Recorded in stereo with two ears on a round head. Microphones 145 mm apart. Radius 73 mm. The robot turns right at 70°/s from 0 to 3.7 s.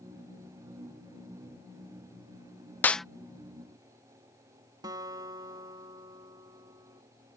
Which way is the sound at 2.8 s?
10° left (ahead or behind).